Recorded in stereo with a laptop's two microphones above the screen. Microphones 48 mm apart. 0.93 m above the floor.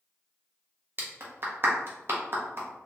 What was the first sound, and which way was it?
A clap, 50° right (ahead or behind).